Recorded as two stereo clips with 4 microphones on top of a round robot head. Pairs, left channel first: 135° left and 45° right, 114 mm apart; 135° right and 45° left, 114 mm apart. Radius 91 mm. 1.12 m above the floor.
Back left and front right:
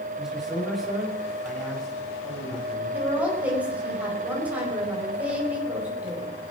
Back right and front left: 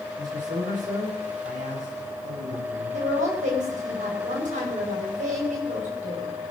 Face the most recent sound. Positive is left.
turn(degrees=35)